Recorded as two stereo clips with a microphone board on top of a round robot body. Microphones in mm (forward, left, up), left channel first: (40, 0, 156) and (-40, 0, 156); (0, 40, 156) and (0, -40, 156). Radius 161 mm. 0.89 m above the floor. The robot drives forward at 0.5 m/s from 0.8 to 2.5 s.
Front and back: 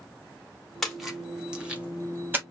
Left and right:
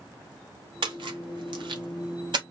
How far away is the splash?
About 1.5 m.